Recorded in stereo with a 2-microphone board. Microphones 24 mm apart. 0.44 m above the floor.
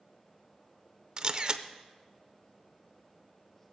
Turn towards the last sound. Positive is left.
turn(degrees=-35)  # may be behind; listen again after turning